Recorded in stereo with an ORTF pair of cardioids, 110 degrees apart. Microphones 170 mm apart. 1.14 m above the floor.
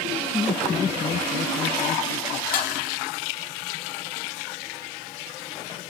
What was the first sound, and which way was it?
Laughter, 15° left.